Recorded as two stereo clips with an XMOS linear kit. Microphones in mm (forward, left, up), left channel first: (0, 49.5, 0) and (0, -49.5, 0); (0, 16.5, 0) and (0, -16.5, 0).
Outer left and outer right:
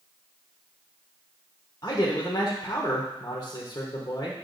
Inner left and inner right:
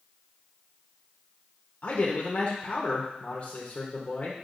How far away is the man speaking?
About 1.1 m.